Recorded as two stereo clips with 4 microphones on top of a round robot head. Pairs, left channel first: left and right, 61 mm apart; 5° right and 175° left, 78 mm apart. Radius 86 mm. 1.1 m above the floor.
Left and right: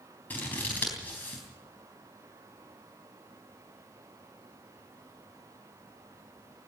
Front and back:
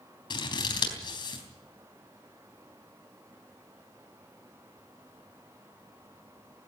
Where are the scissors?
20° left, 4 m.